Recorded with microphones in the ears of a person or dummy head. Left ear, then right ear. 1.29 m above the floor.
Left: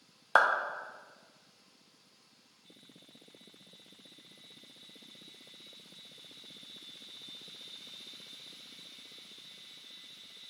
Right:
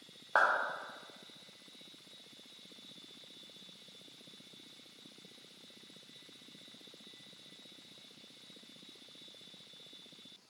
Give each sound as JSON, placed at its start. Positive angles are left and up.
{"t": 0.3, "sound": "a clap", "side_deg": 80, "distance_m": 0.9}